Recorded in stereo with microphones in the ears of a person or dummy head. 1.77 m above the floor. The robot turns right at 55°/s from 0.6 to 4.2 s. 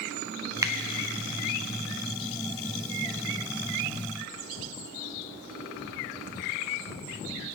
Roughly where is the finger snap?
Centre.